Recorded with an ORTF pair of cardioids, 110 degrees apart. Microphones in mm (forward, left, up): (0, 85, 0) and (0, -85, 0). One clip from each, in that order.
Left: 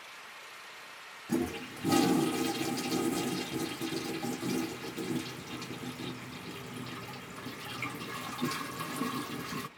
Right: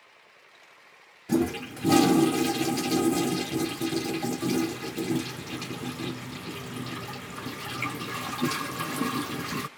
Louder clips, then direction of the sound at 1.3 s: Right 7 dB; 30° right.